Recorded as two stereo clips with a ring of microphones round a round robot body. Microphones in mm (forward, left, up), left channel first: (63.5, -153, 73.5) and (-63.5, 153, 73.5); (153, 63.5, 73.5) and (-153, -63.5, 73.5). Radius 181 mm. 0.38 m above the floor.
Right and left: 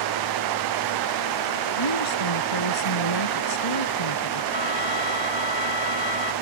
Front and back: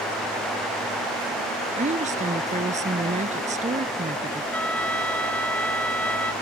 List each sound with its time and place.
1.8 s a woman speaking: 90° right
4.5 s a trumpet: 65° right